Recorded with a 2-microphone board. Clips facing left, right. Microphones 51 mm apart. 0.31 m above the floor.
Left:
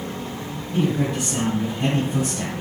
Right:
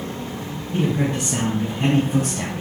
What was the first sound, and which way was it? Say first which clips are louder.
A man speaking: even; 55° right (ahead or behind).